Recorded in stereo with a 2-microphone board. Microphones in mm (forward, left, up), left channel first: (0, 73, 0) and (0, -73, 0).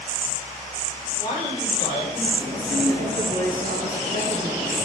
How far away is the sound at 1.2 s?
About 8 m.